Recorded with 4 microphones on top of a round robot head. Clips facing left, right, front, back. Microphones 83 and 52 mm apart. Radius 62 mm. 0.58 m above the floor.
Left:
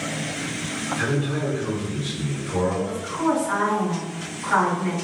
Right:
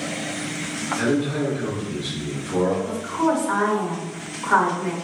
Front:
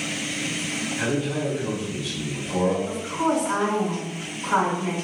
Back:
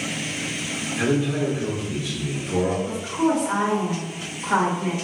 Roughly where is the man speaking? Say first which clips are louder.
Right 4 dB, back 4 dB; behind.